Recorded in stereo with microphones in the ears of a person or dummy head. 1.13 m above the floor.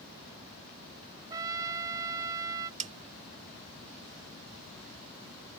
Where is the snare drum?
40° right (ahead or behind).